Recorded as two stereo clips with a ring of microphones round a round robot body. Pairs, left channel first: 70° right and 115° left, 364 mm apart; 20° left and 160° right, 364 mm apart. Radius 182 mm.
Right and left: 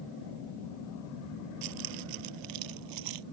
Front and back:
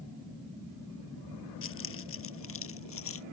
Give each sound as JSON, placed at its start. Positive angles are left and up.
{"t": 1.6, "sound": "keys jangling", "azimuth_deg": 80}